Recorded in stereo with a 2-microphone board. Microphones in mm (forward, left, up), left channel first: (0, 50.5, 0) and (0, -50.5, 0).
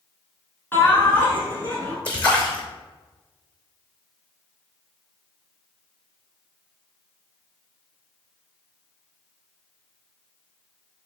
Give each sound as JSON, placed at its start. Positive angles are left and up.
{"t": 0.7, "sound": "laughter", "side_deg": 20, "distance_m": 1.1}
{"t": 2.0, "sound": "a splash", "side_deg": 10, "distance_m": 1.1}